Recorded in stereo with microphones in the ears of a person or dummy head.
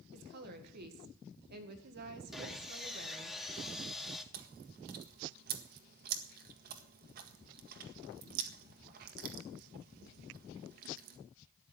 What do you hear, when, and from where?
0.1 s a woman speaking: 50° right (ahead or behind), 1.9 m
2.3 s sawing: centre (ahead or behind), 1.7 m
4.3 s chewing: 55° right (ahead or behind), 1.7 m